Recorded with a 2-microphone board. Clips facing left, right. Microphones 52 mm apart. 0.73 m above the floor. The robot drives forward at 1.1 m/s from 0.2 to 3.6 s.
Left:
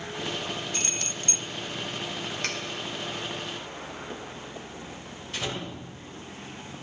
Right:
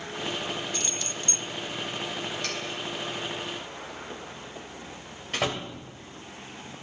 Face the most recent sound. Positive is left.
turn(degrees=-70)  # may be behind; listen again after turning